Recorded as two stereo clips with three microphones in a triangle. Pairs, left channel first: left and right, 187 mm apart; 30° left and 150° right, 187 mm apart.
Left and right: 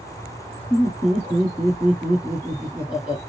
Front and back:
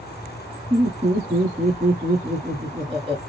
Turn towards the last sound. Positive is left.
turn(degrees=-170)